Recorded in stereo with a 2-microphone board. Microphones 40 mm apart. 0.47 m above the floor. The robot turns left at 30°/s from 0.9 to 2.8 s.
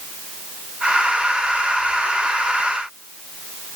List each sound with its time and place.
Only background noise.